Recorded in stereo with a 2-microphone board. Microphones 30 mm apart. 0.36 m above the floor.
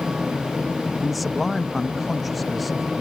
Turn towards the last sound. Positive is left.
turn(degrees=0)  # may be behind; listen again after turning